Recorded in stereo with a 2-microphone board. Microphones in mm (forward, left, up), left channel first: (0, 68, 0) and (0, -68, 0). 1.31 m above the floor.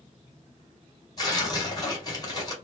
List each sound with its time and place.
1.2 s tearing paper: 30° left (ahead or behind), 1.9 m